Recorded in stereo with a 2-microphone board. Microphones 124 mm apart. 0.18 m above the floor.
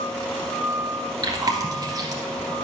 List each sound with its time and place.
1.2 s chewing: 30° right (ahead or behind), 1.3 m